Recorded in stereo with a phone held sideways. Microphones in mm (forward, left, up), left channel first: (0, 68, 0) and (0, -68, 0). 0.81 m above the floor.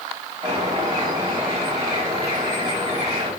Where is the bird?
30° right (ahead or behind), 3.5 m.